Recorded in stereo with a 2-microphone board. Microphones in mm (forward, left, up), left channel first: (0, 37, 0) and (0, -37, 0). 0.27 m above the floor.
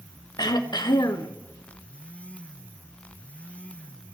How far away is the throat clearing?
About 0.7 m.